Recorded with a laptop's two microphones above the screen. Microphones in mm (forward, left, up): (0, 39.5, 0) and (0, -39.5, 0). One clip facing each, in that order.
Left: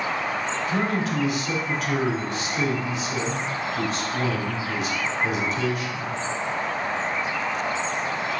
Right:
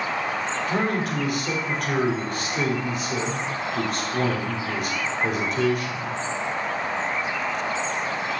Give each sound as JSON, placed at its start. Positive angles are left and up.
{"t": 0.7, "sound": "a man speaking", "side_deg": -50, "distance_m": 2.5}